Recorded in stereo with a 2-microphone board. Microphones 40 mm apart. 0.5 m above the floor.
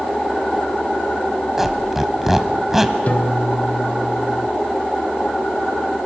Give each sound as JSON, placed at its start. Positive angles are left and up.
{"t": 1.6, "sound": "a squeak", "side_deg": -5, "distance_m": 1.3}
{"t": 3.1, "sound": "a piano", "side_deg": 50, "distance_m": 1.0}